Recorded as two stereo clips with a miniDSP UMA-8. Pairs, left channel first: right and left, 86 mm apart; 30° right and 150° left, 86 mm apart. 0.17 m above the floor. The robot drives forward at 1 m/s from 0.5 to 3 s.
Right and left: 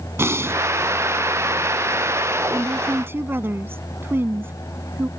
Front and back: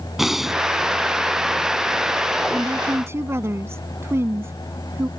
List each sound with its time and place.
0.2 s breathing: 65° left; by 0.6 s 80° left
2.5 s a woman speaking: 80° left; by 5.1 s 125° left